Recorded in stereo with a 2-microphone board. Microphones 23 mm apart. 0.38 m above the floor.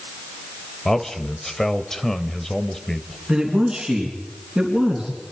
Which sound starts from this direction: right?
A man speaking, at 3.3 s.